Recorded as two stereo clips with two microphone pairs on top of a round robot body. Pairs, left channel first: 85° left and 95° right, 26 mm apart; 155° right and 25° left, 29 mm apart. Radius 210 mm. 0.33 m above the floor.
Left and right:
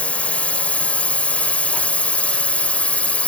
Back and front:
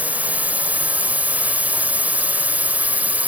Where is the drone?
45° left.